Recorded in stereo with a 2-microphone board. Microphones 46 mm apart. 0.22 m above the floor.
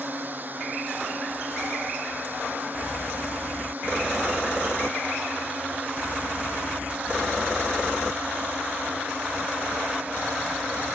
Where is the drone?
45° right (ahead or behind); by 10.9 s 35° right (ahead or behind).